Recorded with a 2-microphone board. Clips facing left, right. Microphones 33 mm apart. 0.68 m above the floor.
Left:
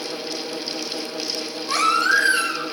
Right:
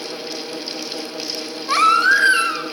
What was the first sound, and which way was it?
A baby crying, 35° right (ahead or behind).